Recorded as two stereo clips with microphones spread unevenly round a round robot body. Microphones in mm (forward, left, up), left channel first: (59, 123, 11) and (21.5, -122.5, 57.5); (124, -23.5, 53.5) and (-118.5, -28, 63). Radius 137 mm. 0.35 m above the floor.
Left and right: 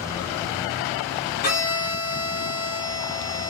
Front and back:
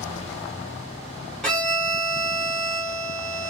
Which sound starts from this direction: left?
A violin, at 1.4 s.